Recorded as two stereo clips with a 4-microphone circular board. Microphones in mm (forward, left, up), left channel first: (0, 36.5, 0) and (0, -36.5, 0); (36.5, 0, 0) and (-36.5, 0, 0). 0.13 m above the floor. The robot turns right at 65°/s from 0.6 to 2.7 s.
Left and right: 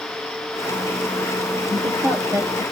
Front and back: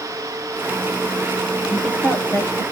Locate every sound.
1.7 s a woman speaking: 95° right, 3 m; by 2.6 s 35° right, 3 m